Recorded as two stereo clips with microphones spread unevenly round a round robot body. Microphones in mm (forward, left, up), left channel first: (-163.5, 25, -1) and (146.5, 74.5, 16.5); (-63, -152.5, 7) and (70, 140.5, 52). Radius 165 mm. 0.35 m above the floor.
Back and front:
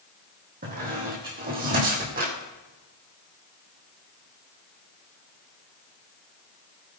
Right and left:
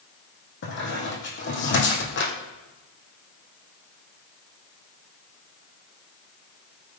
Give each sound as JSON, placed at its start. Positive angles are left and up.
{"t": 0.6, "sound": "a squeak", "azimuth_deg": -55, "distance_m": 2.5}